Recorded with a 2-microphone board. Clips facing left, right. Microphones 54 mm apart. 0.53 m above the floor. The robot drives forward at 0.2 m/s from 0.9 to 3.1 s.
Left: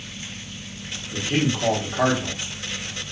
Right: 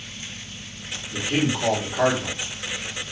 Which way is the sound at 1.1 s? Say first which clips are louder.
Even; 10° left (ahead or behind).